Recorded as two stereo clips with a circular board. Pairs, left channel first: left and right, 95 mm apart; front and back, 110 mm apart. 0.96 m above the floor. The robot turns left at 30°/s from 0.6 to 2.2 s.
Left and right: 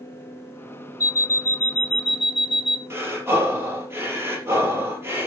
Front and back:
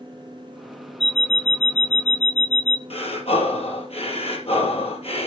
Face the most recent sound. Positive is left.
turn(degrees=-25)